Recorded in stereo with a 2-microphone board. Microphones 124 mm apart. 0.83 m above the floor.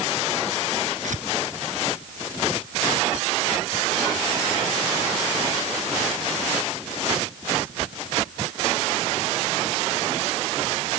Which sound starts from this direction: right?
Tearing paper, at 1.0 s.